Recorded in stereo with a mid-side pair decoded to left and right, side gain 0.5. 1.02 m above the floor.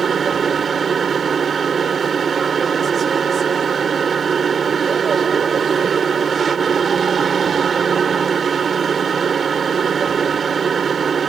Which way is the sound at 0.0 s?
40° right.